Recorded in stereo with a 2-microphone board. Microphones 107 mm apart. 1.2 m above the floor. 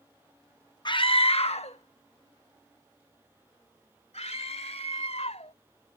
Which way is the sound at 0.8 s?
45° left (ahead or behind).